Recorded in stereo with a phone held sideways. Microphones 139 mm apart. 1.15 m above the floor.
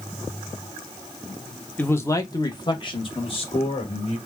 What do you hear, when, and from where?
1.8 s a man speaking: 10° left (ahead or behind), 0.8 m; by 4.2 s 45° left (ahead or behind), 1.8 m